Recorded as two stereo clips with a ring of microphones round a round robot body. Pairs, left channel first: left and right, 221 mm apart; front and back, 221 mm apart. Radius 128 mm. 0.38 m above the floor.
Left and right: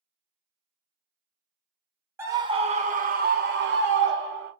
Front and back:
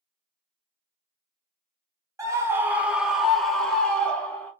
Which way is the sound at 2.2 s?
145° right.